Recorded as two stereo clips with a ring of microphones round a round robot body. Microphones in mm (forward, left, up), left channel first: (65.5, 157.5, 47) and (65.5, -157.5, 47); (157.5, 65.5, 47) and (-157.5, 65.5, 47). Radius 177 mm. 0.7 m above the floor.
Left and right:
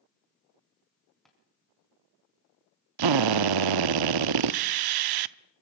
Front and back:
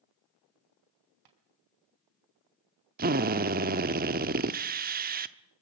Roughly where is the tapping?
Behind.